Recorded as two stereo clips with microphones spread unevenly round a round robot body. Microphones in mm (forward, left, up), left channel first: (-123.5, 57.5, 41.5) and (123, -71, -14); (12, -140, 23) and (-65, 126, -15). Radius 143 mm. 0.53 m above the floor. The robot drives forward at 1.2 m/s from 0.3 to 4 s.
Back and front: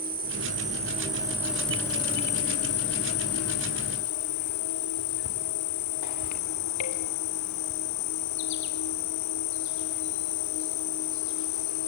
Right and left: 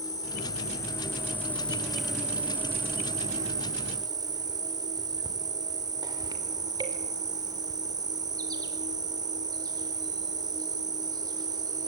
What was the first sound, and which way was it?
An insect, 5° left.